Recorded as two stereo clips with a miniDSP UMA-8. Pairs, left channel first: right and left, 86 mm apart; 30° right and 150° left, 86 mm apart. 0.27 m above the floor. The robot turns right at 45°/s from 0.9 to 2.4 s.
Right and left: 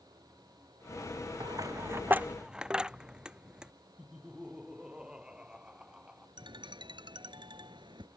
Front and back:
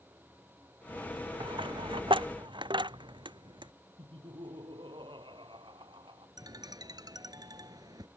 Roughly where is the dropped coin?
Behind left.